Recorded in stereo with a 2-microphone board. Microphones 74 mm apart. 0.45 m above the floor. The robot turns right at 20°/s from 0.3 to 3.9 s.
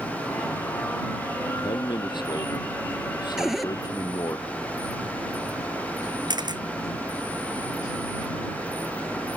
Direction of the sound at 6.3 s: 80° right.